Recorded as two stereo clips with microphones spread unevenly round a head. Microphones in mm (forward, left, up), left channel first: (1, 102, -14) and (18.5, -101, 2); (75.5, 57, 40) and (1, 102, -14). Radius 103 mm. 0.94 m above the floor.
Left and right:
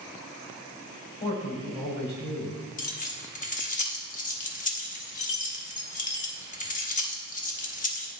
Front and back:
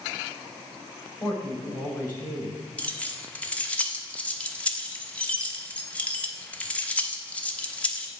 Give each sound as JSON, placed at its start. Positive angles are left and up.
{"t": 1.2, "sound": "a man speaking", "azimuth_deg": 35, "distance_m": 2.5}
{"t": 2.8, "sound": "keys jangling", "azimuth_deg": 45, "distance_m": 0.9}